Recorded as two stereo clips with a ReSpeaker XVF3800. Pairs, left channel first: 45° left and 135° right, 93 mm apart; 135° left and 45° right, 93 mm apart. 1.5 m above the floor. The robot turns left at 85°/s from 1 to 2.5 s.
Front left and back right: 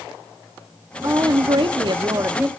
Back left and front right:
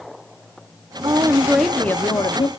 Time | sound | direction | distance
1.0 | a woman speaking | 85° right | 0.8 m